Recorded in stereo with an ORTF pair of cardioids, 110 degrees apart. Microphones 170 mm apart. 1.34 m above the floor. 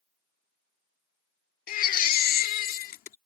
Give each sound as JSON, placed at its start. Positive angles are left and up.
{"t": 1.7, "sound": "a baby crying", "azimuth_deg": 65}